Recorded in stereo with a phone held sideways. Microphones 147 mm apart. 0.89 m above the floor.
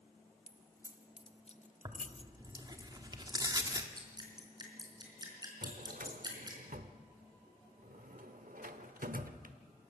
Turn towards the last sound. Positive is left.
turn(degrees=-70)  # may be behind; listen again after turning